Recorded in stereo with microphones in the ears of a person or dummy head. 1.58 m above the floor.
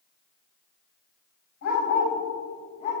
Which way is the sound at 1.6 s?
65° left (ahead or behind).